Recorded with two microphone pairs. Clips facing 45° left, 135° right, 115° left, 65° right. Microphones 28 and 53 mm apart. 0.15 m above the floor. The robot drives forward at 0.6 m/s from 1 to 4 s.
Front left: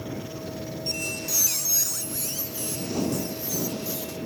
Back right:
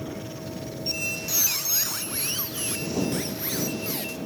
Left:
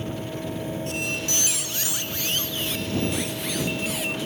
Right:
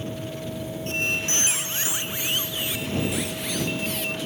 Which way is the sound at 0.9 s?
60° right.